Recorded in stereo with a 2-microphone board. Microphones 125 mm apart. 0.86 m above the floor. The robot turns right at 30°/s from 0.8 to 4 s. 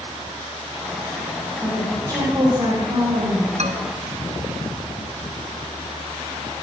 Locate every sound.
1.6 s a woman speaking: 170° right, 5 m; by 3.5 s 110° right, 5 m
3.6 s a man speaking: 60° right (ahead or behind), 1.2 m; by 3.9 s 70° right (ahead or behind), 1.2 m